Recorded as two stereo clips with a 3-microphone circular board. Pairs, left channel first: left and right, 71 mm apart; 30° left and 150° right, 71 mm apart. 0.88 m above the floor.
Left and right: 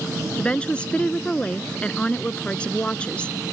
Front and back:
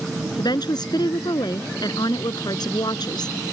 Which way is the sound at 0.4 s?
15° left.